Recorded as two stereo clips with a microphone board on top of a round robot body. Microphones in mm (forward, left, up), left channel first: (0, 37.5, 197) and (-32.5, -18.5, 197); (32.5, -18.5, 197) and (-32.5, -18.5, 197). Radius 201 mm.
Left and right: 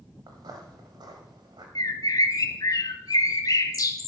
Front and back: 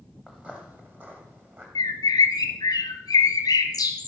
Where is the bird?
30° left, 1.0 m.